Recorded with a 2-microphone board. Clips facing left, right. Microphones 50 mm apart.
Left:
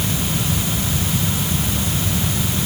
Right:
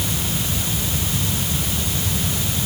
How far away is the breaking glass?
I don't hear breaking glass.